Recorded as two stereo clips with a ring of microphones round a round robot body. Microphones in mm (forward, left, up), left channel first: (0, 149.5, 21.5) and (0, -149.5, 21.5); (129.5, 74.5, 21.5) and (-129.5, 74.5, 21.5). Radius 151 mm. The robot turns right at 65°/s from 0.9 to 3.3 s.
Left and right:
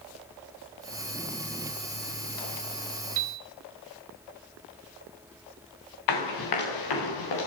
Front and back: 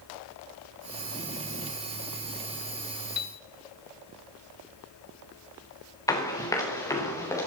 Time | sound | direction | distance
3.2 | a piano | 45° right | 1.8 m
6.1 | running footsteps | 75° left | 5.5 m